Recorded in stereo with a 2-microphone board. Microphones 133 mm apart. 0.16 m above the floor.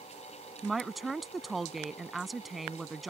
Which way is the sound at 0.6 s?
Centre (ahead or behind).